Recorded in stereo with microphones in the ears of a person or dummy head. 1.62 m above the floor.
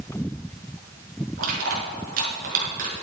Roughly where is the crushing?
Right.